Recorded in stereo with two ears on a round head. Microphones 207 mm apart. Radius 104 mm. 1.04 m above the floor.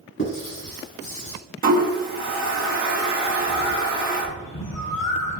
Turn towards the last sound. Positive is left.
turn(degrees=75)  # may be behind; listen again after turning